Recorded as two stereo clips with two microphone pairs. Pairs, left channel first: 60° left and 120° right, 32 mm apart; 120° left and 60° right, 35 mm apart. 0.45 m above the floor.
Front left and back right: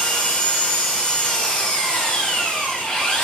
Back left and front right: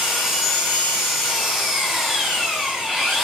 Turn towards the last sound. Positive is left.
turn(degrees=15)